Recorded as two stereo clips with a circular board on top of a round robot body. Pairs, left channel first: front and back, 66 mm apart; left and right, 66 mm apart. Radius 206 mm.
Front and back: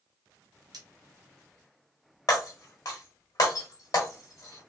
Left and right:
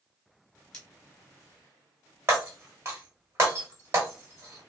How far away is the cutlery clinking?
About 1.3 m.